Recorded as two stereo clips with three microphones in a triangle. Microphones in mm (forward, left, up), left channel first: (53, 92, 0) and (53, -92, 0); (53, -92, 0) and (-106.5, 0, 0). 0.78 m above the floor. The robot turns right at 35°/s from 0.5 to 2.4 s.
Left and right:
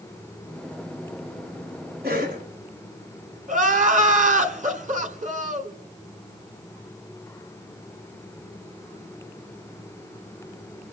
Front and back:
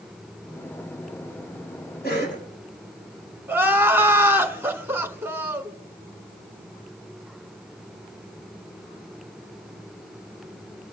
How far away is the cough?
About 7.5 m.